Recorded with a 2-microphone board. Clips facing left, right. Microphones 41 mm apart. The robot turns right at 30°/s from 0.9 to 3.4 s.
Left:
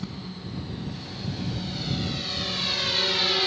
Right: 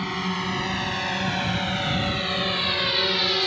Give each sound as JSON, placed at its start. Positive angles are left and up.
{"t": 0.0, "sound": "a drone", "side_deg": -75}